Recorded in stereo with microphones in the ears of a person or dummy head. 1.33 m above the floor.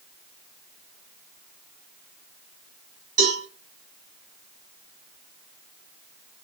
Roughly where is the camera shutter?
I don't hear a camera shutter.